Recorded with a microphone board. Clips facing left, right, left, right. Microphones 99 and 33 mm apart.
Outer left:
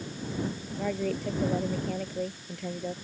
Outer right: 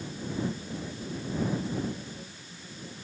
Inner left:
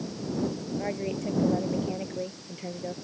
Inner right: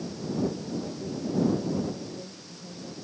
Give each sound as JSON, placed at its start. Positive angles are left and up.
{"t": 0.8, "sound": "a woman speaking", "side_deg": 80}